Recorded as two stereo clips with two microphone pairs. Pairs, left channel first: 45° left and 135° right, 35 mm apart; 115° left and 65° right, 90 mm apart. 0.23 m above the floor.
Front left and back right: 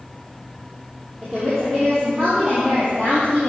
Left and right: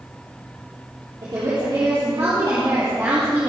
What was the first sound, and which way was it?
A woman speaking, 35° right.